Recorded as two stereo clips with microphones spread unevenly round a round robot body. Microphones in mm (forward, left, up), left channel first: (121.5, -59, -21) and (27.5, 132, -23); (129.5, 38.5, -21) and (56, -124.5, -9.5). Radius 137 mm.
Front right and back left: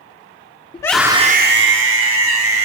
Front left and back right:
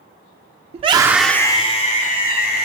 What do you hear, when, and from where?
0.7 s a scream: 110° right, 0.7 m; by 2.6 s 115° left, 2 m